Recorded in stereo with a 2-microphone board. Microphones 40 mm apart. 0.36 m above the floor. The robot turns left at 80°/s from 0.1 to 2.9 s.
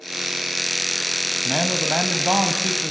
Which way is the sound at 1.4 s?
20° right.